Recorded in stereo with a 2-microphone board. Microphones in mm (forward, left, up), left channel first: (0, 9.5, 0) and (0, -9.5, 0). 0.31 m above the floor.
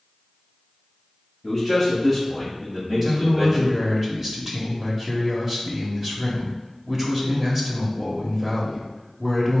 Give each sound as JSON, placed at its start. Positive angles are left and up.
{"t": 1.4, "sound": "a man speaking", "side_deg": -10, "distance_m": 1.2}
{"t": 3.0, "sound": "a man speaking", "side_deg": -20, "distance_m": 0.9}